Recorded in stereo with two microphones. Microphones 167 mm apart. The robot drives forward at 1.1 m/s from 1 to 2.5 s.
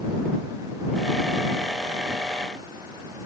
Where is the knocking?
No knocking in this recording.